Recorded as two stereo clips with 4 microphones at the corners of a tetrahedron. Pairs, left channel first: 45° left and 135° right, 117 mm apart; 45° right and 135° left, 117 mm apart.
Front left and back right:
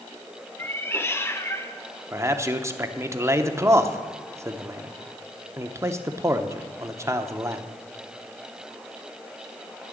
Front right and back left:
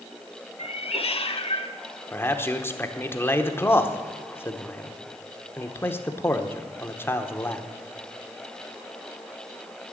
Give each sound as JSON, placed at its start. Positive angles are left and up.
{"t": 0.6, "sound": "a cat meowing", "azimuth_deg": -20, "distance_m": 0.7}
{"t": 2.1, "sound": "a man speaking", "azimuth_deg": -95, "distance_m": 0.8}